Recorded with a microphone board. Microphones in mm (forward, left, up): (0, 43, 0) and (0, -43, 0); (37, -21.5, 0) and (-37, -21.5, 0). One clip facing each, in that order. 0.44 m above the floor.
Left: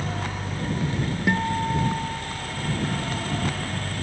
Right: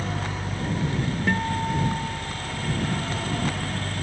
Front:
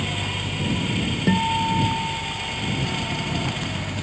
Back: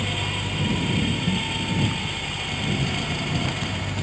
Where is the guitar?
5° left.